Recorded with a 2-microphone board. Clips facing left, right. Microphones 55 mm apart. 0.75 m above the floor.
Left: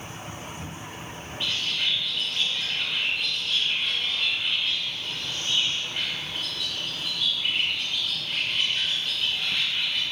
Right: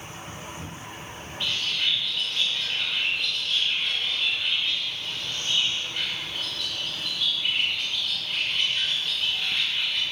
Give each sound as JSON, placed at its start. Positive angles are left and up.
{"t": 1.4, "sound": "a bird", "side_deg": 10, "distance_m": 1.7}